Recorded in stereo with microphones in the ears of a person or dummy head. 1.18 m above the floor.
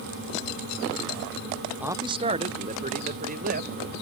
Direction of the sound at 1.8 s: 5° right (ahead or behind).